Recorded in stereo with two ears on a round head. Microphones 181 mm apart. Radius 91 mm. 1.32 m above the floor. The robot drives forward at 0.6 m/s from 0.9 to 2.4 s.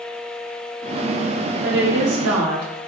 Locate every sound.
1.6 s a woman speaking: 55° right (ahead or behind), 0.7 m; by 2.6 s 80° right, 0.6 m